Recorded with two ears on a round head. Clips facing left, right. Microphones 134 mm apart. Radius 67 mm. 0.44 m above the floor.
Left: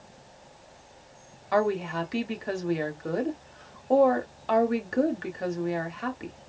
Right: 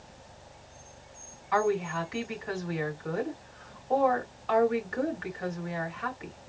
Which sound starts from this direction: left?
A woman speaking, at 1.5 s.